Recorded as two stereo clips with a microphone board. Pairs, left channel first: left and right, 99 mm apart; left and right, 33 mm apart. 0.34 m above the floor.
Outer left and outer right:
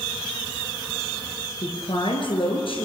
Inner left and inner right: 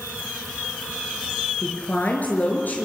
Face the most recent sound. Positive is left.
turn(degrees=65)  # may be behind; listen again after turning